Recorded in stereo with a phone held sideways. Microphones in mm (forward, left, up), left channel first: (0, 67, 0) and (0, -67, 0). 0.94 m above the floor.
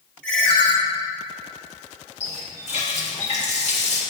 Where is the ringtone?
10° left (ahead or behind), 1.3 m.